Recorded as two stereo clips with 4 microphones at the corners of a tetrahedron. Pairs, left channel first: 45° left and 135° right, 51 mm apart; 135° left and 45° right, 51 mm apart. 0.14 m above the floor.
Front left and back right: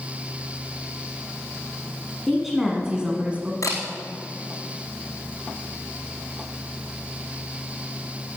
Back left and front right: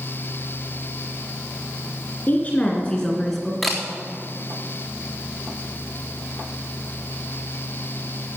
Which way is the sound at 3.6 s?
50° left.